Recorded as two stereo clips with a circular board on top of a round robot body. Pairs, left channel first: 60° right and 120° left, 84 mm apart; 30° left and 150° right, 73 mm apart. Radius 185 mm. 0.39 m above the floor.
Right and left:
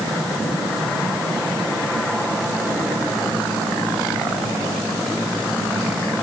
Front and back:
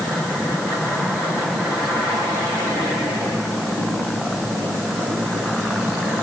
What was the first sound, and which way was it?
Only background noise.